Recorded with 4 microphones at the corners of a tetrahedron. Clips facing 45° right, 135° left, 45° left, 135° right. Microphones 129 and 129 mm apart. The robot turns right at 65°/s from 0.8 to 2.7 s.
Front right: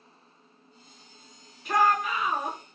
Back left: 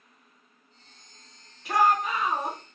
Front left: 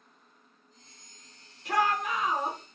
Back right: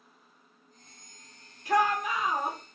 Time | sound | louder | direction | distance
1.6 | a shout | back left 1 dB, back right 2 dB | 50° left | 1.6 m